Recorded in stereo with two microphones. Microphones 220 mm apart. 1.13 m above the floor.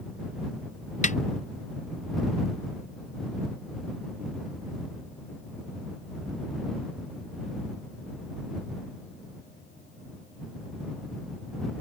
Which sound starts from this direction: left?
A snare drum, at 1.0 s.